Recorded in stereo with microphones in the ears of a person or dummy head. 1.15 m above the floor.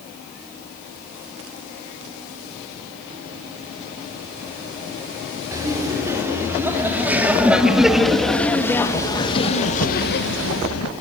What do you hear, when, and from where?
5.5 s laughter: 15° right (ahead or behind), 4 m; by 10.9 s 75° left (ahead or behind), 1.4 m